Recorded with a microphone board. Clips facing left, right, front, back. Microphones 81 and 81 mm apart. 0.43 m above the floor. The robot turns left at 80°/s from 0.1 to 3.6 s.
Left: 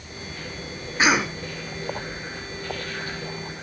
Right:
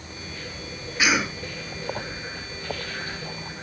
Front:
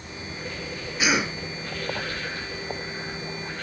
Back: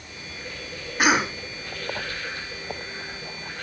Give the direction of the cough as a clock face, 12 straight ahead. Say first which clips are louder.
Left 3 dB, back 4 dB; 7 o'clock.